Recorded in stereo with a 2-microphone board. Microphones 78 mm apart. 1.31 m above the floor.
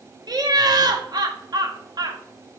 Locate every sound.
0.3 s laughter: 60° right (ahead or behind), 0.7 m